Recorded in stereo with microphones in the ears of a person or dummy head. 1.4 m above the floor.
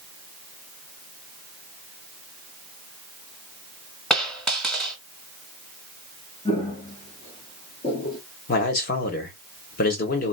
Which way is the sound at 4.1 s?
Centre (ahead or behind).